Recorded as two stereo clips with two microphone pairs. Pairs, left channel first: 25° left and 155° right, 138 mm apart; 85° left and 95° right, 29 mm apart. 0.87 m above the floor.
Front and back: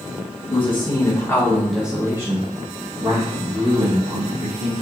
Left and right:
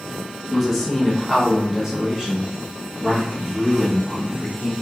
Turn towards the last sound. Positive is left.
turn(degrees=-155)